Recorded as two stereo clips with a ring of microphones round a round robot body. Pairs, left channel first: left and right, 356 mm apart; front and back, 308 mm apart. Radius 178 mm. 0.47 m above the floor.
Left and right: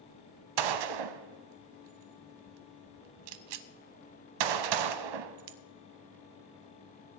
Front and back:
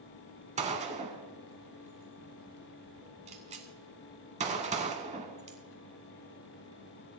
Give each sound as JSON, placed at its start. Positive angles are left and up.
{"t": 0.6, "sound": "a gunshot", "azimuth_deg": -110, "distance_m": 0.7}